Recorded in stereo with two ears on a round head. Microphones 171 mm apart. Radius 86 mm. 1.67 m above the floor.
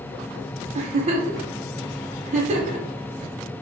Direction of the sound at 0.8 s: 35° right (ahead or behind).